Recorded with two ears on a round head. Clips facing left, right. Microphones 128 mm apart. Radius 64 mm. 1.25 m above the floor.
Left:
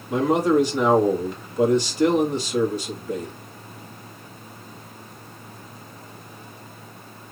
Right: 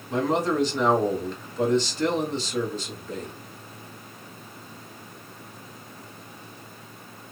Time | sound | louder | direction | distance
0.1 | a man speaking | left 5 dB | 10° left (ahead or behind) | 1.5 m